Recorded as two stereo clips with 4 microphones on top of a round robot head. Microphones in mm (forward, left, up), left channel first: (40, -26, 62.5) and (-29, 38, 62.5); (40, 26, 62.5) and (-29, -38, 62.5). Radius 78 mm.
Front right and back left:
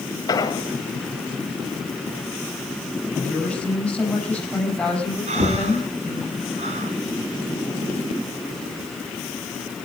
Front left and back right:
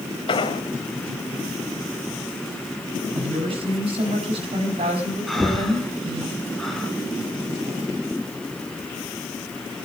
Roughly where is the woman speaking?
Behind right.